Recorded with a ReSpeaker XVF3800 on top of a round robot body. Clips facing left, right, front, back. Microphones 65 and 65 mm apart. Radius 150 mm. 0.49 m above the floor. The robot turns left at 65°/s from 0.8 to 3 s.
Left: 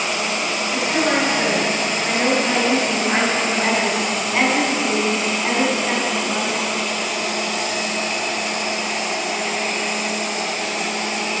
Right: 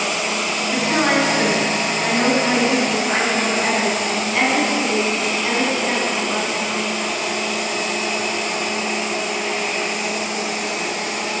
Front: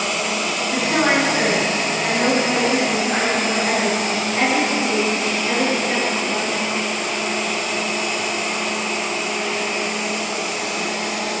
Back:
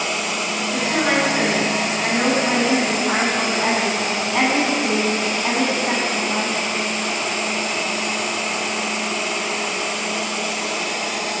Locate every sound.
0.7 s a woman speaking: 45° right, 5.5 m; by 6.6 s 170° left, 5.5 m